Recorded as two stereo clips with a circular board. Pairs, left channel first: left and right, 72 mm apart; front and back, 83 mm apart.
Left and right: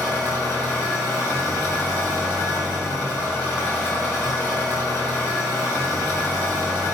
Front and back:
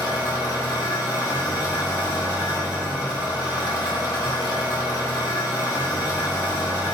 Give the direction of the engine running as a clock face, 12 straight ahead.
11 o'clock.